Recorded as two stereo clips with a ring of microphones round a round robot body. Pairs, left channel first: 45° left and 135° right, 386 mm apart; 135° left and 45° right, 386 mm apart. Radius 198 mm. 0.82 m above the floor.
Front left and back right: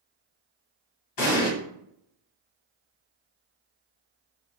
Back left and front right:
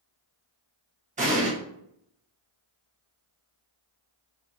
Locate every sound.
1.2 s an explosion: 25° left, 1.4 m